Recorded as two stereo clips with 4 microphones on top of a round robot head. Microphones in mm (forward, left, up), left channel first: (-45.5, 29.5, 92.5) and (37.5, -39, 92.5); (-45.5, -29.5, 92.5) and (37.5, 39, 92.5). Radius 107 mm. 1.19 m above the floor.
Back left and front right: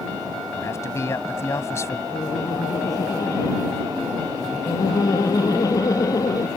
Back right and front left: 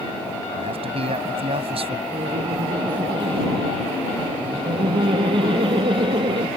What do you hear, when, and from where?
0.5 s a man speaking: 75° left
2.1 s laughter: 80° left